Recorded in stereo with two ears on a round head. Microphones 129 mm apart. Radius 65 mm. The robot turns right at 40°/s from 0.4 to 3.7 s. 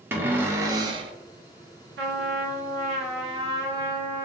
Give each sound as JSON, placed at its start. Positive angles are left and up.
{"t": 0.1, "sound": "a cupboard door", "side_deg": -15, "distance_m": 0.5}
{"t": 2.0, "sound": "a trumpet", "azimuth_deg": -90, "distance_m": 0.6}